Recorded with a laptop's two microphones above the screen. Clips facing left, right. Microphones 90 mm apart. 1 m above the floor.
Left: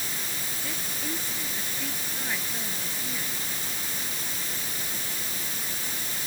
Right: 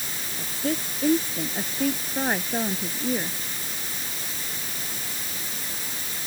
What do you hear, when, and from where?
0.4 s a woman speaking: 50° right (ahead or behind)